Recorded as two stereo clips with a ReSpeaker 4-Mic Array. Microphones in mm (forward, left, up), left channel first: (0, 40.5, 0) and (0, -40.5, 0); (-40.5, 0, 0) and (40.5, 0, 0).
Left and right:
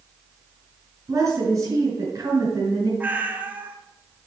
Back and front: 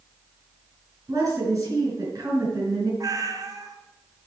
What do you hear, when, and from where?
1.1 s a woman speaking: 40° right, 4 m
3.0 s a cat meowing: 25° right, 1.1 m